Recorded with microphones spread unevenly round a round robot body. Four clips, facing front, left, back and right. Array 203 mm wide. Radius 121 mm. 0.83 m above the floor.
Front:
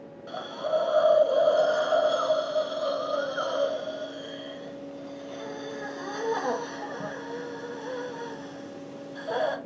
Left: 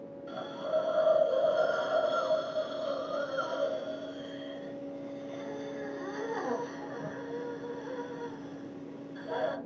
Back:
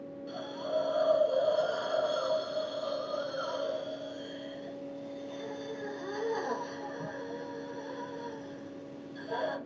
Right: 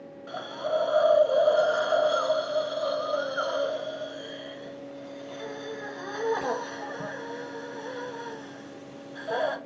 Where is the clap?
No clap in this recording.